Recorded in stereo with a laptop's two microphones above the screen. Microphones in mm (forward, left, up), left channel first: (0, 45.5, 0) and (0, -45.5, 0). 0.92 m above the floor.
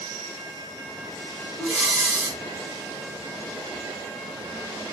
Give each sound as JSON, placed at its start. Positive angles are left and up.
{"t": 1.6, "sound": "breathing", "side_deg": -10, "distance_m": 1.8}